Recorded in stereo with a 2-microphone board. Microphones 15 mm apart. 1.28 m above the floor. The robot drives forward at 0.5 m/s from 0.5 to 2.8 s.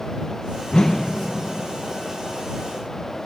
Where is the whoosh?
55° left (ahead or behind), 0.6 m; by 1.2 s 40° left (ahead or behind), 0.8 m.